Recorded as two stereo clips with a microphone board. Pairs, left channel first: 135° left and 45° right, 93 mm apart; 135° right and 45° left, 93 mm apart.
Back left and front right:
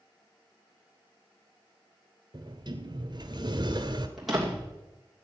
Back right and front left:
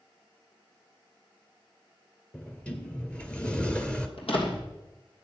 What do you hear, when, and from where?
2.3 s a sliding door: 60° right, 1.2 m
4.2 s a door slam: 135° right, 3 m